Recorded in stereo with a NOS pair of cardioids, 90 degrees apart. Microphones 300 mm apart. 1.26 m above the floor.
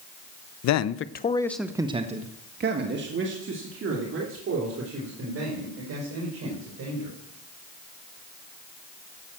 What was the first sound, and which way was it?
A man speaking, 70° left.